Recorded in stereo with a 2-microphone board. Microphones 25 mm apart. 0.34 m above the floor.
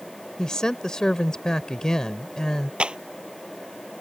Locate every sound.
0.4 s a woman speaking: 30° left (ahead or behind)
2.8 s a clap: 45° right (ahead or behind)